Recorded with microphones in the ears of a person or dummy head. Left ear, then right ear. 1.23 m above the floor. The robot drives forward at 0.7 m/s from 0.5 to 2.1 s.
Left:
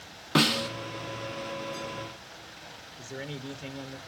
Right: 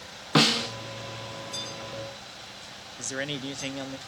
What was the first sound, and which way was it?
A snare drum, 5° right (ahead or behind).